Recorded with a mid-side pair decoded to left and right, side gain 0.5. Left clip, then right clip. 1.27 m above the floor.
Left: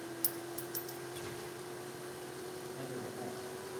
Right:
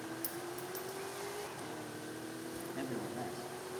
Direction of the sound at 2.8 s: 70° right.